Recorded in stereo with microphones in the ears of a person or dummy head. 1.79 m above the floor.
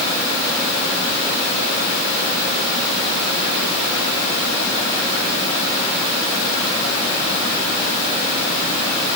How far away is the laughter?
No laughter in this recording.